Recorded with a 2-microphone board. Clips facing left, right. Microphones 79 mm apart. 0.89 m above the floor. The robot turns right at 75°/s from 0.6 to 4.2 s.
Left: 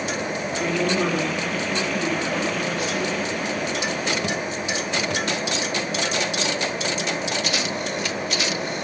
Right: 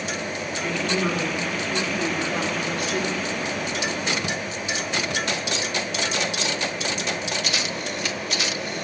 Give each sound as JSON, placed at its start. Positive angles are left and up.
{"t": 0.6, "sound": "a woman speaking", "azimuth_deg": 75, "distance_m": 2.5}